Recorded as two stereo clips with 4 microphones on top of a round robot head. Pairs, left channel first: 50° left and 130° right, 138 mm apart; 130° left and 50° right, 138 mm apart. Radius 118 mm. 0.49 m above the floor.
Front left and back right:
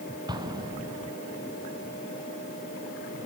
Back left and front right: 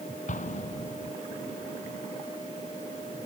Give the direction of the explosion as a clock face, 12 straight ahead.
6 o'clock.